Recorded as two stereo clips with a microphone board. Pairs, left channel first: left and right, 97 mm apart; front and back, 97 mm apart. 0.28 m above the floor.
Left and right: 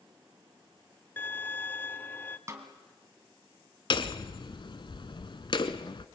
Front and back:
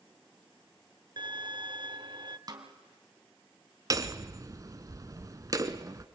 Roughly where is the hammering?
Behind left.